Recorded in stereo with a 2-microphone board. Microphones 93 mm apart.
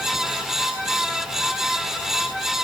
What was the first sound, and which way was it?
Only background noise.